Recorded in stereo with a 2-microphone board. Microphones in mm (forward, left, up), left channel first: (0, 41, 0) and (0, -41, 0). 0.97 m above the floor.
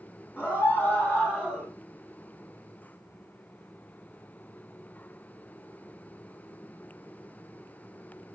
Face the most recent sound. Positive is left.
turn(degrees=15)  # may be behind; listen again after turning